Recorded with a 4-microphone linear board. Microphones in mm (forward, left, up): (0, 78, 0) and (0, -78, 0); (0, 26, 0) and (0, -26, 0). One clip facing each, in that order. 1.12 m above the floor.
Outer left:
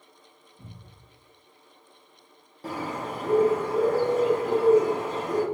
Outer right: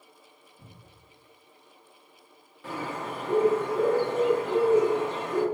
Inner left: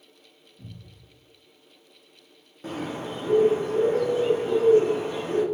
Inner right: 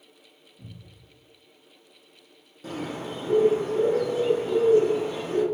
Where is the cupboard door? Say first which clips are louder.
Outer left 5 dB, inner left 1 dB; 5° left (ahead or behind), 1.6 m.